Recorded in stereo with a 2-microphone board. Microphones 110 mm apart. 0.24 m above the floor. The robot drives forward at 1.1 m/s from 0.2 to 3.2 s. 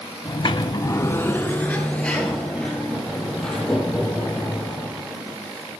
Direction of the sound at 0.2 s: 40° left (ahead or behind).